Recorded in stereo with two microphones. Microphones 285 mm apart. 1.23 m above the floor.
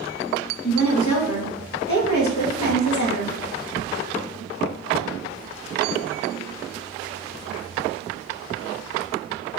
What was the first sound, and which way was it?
A woman speaking, 80° left.